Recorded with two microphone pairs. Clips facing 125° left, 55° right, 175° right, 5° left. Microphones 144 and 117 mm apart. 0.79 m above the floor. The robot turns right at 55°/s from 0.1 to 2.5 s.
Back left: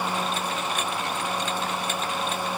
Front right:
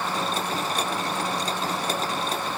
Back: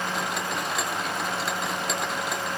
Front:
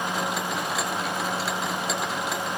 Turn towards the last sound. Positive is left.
No sound to turn to.